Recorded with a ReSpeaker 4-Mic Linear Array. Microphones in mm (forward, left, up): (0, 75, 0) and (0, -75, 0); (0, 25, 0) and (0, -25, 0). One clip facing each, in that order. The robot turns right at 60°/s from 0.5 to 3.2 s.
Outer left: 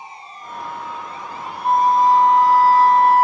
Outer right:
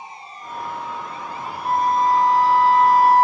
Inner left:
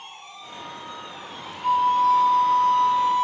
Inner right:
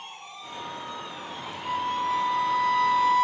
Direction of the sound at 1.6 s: 75° left.